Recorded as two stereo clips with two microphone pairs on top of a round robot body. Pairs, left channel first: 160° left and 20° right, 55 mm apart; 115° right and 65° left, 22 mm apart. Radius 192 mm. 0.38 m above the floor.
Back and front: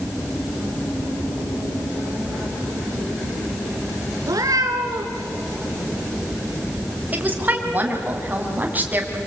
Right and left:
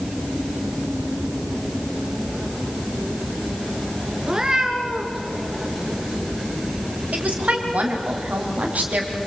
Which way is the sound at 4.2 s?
5° right.